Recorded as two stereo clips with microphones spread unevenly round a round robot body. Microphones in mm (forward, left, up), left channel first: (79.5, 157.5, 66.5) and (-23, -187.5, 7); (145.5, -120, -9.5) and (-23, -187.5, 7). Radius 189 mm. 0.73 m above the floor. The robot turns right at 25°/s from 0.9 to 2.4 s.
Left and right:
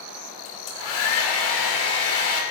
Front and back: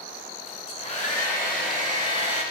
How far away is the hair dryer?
About 3 m.